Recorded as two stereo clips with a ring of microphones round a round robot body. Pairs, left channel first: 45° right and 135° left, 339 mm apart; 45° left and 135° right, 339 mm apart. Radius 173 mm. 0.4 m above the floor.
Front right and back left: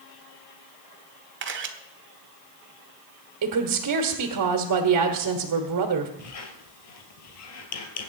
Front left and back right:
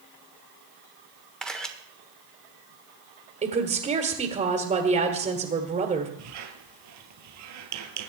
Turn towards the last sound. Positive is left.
turn(degrees=-90)